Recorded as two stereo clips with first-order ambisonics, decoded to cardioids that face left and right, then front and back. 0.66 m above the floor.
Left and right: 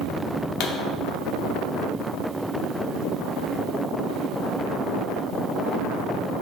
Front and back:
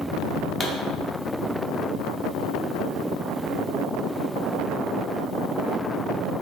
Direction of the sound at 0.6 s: 65° left.